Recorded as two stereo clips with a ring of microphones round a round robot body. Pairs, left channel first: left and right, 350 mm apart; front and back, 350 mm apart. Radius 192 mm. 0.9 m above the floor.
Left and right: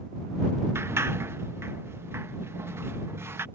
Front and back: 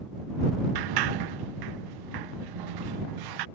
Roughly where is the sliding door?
Behind.